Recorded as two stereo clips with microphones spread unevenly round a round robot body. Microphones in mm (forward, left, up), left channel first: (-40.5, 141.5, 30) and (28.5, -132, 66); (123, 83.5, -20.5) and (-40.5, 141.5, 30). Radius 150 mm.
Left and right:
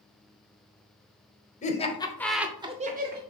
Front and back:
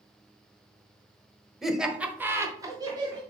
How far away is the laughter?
About 1.3 m.